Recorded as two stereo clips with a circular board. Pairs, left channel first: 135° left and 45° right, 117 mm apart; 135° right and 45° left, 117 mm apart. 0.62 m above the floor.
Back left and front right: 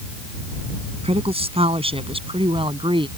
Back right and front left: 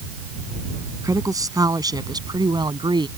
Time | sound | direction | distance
1.0 | a woman speaking | 15° right | ?